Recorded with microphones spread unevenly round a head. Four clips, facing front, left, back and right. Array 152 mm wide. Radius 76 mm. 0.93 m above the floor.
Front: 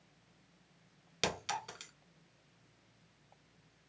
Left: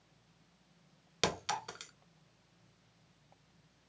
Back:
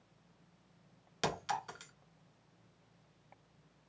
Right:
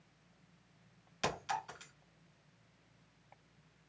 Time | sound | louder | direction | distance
1.2 | a clink | left 2 dB, back 2 dB | 80° left | 1.6 m